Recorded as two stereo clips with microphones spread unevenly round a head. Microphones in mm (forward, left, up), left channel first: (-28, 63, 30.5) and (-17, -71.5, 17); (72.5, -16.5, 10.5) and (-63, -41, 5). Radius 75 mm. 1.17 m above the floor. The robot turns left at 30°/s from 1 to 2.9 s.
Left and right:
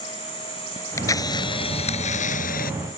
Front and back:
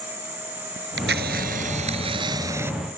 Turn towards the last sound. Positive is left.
turn(degrees=105)